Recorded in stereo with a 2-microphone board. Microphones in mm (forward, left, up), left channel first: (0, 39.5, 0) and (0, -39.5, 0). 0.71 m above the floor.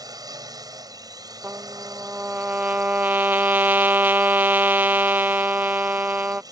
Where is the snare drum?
I don't hear a snare drum.